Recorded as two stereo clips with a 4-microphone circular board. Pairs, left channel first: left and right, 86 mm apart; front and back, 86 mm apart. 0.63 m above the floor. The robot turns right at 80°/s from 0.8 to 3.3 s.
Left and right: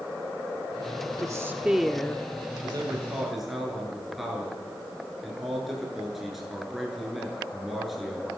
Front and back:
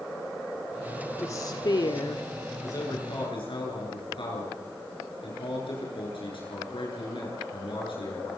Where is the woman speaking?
55° right, 1.2 m; by 2.3 s 35° left, 1.2 m.